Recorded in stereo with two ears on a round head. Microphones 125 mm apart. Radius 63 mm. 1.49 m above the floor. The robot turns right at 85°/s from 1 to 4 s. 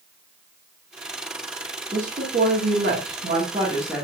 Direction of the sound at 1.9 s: 170° right.